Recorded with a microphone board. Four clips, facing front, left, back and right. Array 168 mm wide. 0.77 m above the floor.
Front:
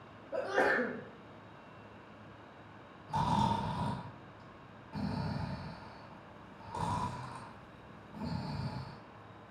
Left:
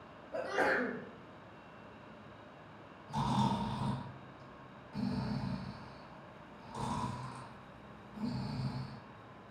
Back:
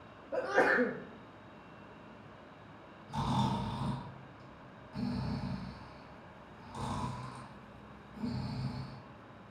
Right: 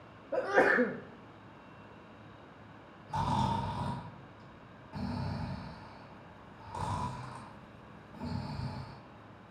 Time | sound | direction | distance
0.3 | a sneeze | 100° right | 0.6 m
3.1 | snoring | 35° right | 1.8 m